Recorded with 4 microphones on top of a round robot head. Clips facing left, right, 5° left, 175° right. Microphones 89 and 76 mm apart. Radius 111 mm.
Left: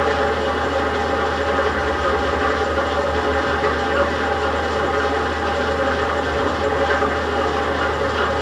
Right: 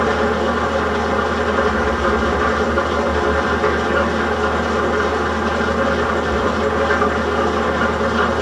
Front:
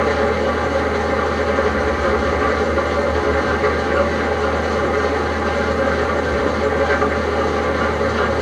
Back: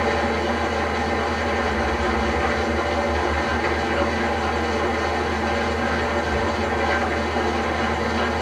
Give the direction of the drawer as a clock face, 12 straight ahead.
I don't hear a drawer.